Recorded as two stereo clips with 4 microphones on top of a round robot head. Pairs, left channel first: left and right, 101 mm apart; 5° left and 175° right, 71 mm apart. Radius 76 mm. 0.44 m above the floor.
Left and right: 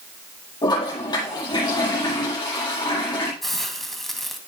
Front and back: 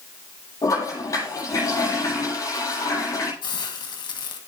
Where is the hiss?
Straight ahead, 2 m.